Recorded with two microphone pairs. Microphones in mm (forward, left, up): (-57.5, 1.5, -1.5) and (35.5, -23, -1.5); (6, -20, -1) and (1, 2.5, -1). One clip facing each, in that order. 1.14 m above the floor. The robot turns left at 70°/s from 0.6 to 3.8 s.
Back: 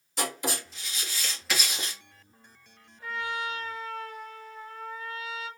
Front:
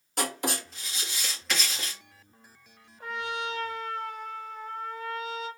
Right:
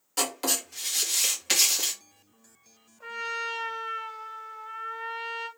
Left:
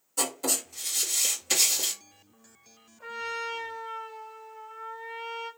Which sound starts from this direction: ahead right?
Writing, at 0.2 s.